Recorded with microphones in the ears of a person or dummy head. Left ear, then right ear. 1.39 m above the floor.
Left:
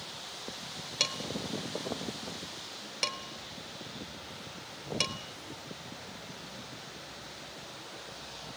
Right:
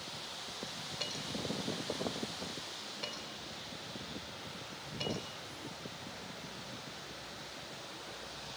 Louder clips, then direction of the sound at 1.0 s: Left 8 dB; 75° left (ahead or behind).